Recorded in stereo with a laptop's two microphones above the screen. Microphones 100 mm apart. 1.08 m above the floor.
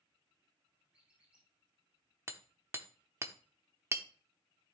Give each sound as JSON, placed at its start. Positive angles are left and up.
{"t": 0.9, "sound": "a squeak", "side_deg": -15, "distance_m": 2.5}
{"t": 2.3, "sound": "hammering", "side_deg": -25, "distance_m": 0.8}